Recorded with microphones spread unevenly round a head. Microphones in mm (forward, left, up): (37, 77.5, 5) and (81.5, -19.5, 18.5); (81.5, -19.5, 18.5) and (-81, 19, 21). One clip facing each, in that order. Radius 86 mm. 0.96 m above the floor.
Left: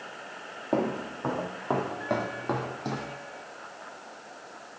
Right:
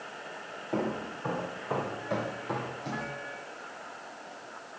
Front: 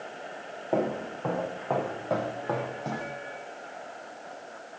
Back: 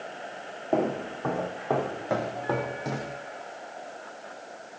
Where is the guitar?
I don't hear a guitar.